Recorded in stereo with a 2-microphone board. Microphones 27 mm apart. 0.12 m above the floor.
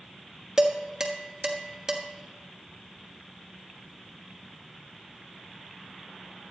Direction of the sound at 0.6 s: 20° right (ahead or behind).